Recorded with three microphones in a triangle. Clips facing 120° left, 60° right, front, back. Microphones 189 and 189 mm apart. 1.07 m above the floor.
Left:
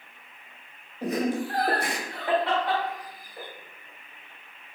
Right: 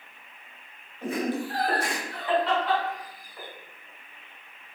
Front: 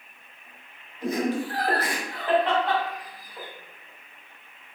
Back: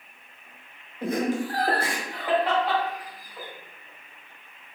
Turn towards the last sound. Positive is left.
turn(degrees=85)